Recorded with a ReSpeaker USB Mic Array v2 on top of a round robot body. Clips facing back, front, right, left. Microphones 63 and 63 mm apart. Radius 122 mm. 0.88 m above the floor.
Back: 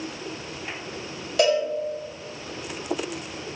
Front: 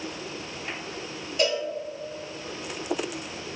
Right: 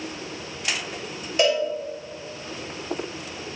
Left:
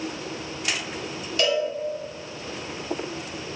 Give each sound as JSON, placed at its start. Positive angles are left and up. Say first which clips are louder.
{"t": 1.4, "sound": "a cowbell", "louder": "back 6 dB, right 2 dB", "azimuth_deg": -155, "distance_m": 1.6}